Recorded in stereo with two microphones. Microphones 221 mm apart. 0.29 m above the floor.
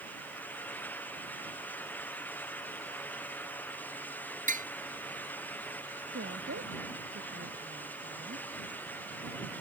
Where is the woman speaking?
85° right.